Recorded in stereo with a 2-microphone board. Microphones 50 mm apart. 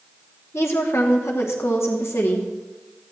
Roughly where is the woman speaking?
Left.